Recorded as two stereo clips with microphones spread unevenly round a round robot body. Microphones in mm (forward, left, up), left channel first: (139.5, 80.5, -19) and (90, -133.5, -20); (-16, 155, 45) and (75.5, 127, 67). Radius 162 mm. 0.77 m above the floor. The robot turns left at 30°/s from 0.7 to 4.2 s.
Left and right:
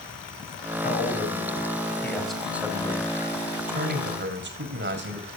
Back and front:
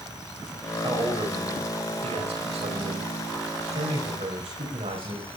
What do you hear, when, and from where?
0.8 s a man speaking: 30° left, 5 m; by 5.3 s 70° right, 5 m